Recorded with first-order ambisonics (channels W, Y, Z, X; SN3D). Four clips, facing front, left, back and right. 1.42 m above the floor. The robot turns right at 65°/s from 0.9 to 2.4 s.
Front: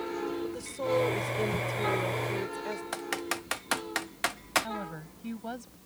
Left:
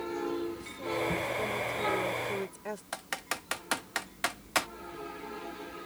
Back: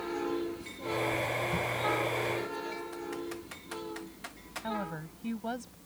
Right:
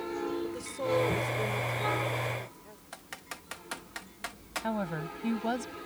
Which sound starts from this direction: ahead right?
A woman speaking, at 0.4 s.